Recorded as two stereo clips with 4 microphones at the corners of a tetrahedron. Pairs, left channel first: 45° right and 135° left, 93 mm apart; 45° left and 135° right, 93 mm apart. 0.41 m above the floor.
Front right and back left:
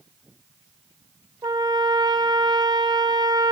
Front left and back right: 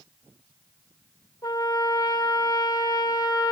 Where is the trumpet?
90° left, 3 m.